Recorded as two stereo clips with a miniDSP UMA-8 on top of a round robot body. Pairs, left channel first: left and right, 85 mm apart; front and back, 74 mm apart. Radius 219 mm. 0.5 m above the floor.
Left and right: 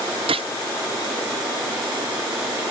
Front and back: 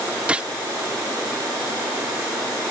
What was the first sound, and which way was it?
A gunshot, 105° right.